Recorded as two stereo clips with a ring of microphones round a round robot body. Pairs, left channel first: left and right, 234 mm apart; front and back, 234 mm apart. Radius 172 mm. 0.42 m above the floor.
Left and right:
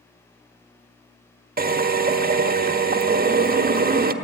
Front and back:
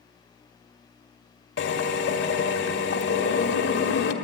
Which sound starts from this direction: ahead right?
A drill, at 1.6 s.